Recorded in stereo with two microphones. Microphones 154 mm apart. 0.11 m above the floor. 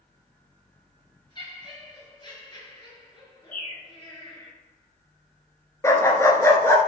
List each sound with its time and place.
1.4 s laughter: 30° left (ahead or behind), 1.6 m
3.5 s a bird: 65° left (ahead or behind), 2 m
5.8 s a dog barking: 20° left (ahead or behind), 0.7 m